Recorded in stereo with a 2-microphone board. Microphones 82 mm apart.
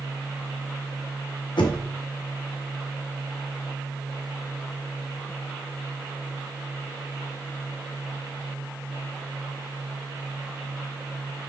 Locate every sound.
1.6 s knocking: 75° left (ahead or behind), 0.6 m